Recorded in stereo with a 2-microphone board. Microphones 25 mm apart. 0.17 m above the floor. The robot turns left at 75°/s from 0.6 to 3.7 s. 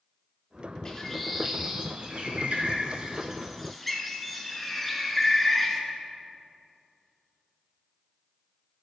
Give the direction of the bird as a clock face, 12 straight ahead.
11 o'clock.